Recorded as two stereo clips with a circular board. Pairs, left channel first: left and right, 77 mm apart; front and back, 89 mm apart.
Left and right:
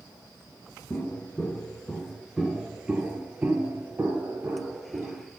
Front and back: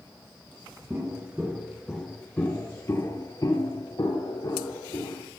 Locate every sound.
0.9 s footsteps: 140° left, 1.6 m; by 5.2 s 30° right, 3 m